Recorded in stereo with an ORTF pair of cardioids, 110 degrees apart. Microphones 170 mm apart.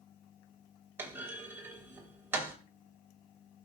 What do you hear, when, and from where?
1.0 s a clunk: 15° right, 2.5 m